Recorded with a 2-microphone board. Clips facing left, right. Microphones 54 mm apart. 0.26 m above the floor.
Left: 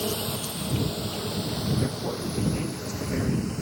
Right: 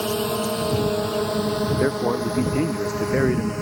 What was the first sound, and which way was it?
A drone, 50° right (ahead or behind).